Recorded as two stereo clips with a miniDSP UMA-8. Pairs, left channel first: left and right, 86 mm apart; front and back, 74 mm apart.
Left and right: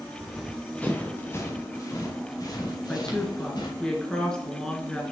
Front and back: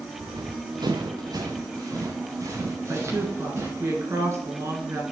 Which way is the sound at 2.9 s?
165° left.